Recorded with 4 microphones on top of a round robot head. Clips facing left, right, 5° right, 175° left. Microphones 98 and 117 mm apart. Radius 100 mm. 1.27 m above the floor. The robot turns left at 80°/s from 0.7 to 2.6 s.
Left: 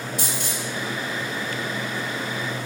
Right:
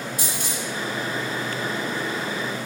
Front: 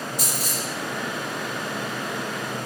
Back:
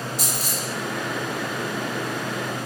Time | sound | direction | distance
0.2 | a dropped coin | 120° right | 1.7 m